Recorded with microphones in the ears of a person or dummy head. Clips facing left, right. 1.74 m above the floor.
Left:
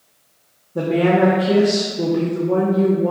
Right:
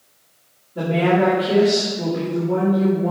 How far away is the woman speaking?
About 1.6 m.